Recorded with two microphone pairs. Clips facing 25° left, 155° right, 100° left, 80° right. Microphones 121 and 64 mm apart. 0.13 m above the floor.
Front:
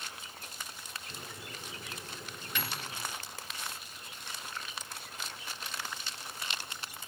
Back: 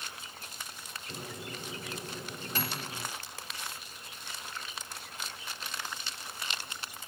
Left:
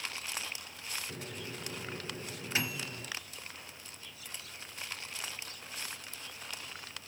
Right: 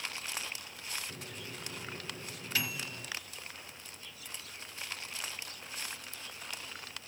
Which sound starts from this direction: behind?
A microwave, at 1.1 s.